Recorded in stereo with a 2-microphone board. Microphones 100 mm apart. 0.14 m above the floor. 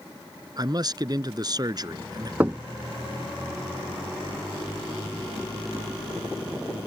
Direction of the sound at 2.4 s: 20° right (ahead or behind).